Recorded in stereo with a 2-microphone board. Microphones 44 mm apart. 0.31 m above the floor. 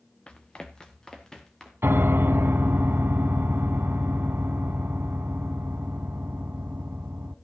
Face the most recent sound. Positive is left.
turn(degrees=-60)  # may be behind; listen again after turning